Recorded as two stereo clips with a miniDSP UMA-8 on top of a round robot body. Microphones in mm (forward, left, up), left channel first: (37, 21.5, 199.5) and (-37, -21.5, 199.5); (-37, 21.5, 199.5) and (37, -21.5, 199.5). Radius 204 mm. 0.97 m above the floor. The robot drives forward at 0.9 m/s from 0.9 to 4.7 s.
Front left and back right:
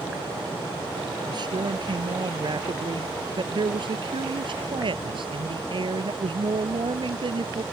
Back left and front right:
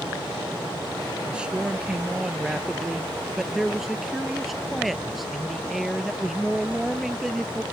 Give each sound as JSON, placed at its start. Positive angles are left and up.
{"t": 1.3, "sound": "a man speaking", "azimuth_deg": -110}